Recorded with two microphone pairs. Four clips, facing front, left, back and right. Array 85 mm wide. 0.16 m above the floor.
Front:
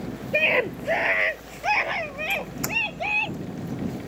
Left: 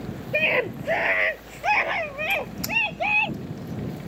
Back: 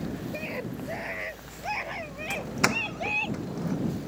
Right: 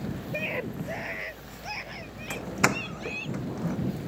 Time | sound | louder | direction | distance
0.3 | a scream | left 11 dB, front 10 dB | 30° left | ?
2.3 | a doorbell | right 1 dB, back 2 dB | 120° right | ?